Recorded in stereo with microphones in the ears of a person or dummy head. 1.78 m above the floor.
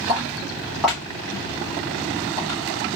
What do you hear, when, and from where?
0.1 s footsteps: 15° right (ahead or behind), 2 m; by 2.6 s 15° left (ahead or behind), 2.5 m